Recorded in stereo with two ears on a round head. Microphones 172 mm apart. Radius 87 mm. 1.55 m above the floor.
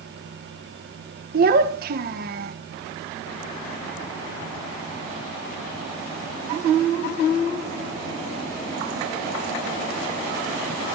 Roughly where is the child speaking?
Right.